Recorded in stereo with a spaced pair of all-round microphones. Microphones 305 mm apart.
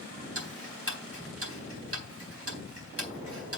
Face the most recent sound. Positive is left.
turn(degrees=-45)  # may be behind; listen again after turning